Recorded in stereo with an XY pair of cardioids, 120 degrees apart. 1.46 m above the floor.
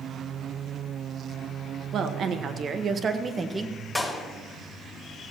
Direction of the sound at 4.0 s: 15° left.